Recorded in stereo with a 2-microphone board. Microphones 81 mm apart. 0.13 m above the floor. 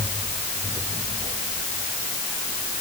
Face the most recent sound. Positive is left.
No sound to turn to.